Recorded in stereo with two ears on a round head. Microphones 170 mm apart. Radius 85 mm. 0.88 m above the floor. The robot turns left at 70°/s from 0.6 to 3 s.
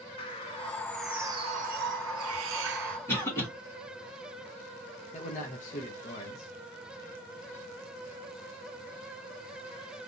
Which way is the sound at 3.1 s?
15° left (ahead or behind).